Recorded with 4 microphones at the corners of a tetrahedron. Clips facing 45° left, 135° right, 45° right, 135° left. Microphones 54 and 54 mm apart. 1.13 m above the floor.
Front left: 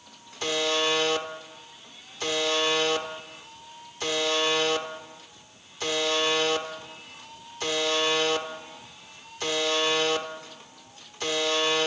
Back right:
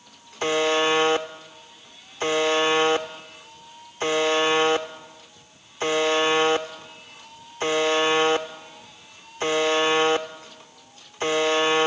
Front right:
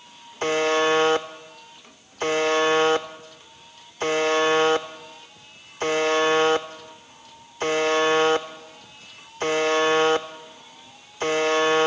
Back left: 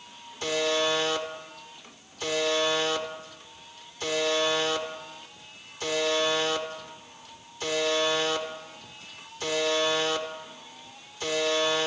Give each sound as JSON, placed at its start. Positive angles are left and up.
{"t": 0.4, "sound": "a buzzer", "azimuth_deg": -80, "distance_m": 1.1}